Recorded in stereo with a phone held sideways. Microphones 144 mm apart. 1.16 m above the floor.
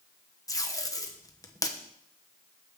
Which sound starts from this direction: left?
Tape being pulled, at 0.5 s.